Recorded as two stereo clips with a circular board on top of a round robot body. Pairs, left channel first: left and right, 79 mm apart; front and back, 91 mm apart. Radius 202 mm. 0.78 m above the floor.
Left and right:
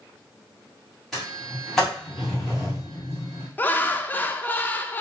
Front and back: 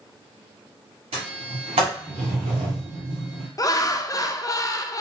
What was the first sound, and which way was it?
A sliding door, 175° left.